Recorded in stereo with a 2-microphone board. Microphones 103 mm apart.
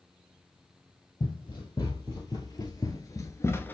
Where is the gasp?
No gasp in this recording.